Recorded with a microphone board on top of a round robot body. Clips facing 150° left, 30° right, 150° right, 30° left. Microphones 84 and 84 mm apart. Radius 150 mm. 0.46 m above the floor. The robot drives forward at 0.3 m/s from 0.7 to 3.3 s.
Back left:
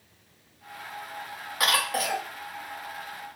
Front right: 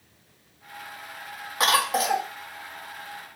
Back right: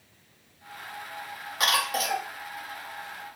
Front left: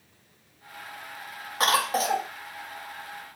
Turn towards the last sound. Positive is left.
turn(degrees=85)